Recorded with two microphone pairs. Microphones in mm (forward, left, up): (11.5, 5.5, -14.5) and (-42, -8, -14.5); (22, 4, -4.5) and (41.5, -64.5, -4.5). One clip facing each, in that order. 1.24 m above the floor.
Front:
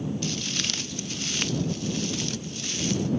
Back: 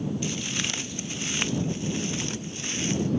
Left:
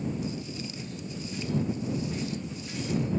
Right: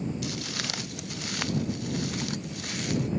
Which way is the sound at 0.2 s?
95° right.